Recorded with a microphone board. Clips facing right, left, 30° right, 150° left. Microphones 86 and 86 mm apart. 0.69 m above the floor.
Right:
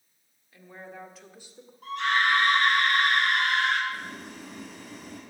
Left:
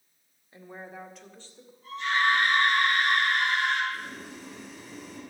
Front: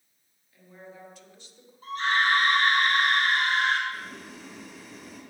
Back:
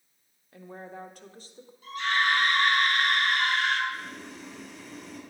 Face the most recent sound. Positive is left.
turn(degrees=-115)